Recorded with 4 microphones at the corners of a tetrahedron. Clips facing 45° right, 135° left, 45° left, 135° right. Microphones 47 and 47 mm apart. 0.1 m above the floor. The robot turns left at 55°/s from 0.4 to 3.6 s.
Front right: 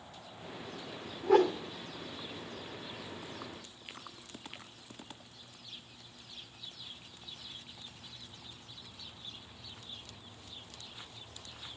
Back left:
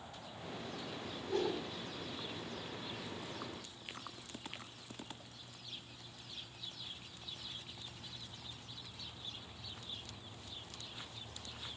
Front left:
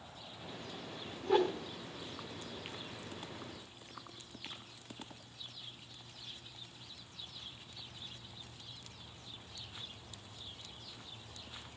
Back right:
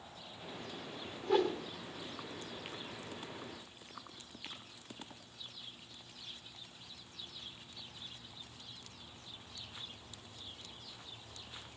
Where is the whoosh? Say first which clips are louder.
Front right 11 dB, front left 1 dB; 35° right, 3 m; by 1.6 s 55° right, 3 m.